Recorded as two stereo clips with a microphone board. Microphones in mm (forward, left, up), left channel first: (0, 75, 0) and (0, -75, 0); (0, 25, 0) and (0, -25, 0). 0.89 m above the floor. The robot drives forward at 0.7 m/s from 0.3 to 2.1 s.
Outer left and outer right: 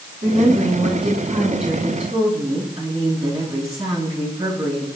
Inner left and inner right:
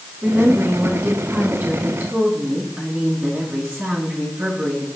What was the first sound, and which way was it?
A woman speaking, 40° right (ahead or behind).